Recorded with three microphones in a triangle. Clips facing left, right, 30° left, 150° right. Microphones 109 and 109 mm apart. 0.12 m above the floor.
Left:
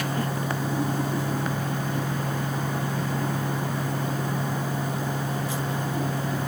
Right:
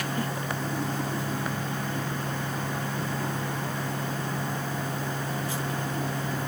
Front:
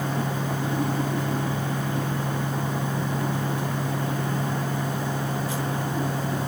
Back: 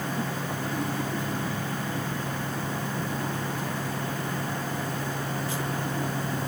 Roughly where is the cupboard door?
No cupboard door in this recording.